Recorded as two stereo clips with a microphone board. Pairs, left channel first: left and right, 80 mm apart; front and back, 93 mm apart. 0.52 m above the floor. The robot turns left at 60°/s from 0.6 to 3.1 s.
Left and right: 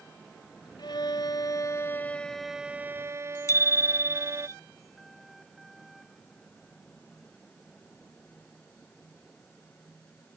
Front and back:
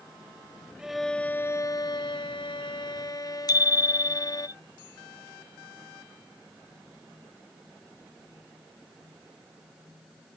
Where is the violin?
100° left; by 4.5 s 40° right.